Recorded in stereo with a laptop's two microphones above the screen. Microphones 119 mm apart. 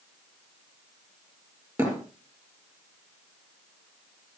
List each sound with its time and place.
1.8 s a thud: 20° right (ahead or behind), 5 m